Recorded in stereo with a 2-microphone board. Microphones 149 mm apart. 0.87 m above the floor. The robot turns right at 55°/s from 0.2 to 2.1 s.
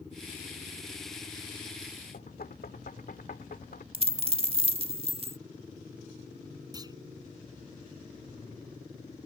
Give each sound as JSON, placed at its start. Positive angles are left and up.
{"t": 2.1, "sound": "knocking", "side_deg": 80}
{"t": 3.9, "sound": "a dropped coin", "side_deg": -40}
{"t": 6.7, "sound": "a clunk", "side_deg": -25}